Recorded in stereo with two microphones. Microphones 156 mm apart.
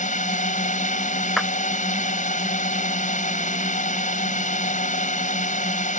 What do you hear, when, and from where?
0.0 s a drone: 55° left (ahead or behind)
1.4 s a clap: centre (ahead or behind)